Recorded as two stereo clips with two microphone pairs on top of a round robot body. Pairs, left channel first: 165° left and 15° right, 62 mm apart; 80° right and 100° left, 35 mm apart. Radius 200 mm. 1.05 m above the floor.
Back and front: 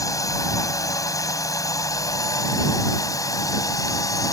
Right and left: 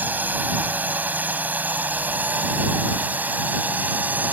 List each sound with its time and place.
0.0 s a drone: 135° left